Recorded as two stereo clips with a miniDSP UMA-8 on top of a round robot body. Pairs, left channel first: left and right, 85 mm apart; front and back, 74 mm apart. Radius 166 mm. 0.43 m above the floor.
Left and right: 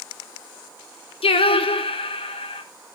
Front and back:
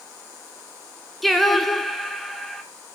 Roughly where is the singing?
Left.